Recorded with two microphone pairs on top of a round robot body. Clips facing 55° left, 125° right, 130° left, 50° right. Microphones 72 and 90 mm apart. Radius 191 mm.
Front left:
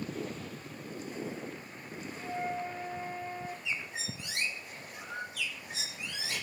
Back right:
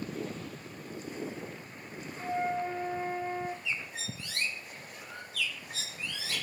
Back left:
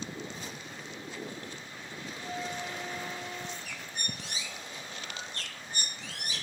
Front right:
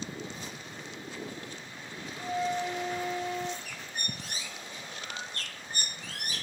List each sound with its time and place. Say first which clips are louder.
2.2 s a flute: back right 4 dB, front right 8 dB; 70° right, 1.1 m
3.6 s a bird: even, even; 10° right, 1.8 m